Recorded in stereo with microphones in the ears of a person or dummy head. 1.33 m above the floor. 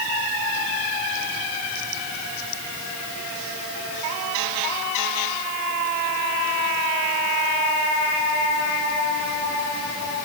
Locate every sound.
Only background noise.